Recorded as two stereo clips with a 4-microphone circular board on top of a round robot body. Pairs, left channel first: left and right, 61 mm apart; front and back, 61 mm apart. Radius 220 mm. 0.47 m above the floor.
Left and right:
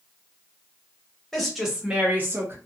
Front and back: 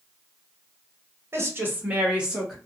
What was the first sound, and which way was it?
A woman speaking, 170° left.